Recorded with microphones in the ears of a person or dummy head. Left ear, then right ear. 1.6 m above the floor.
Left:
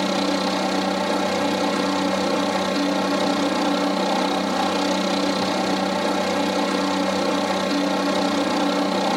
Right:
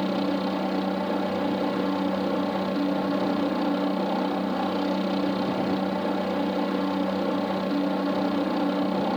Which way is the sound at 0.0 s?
70° left (ahead or behind).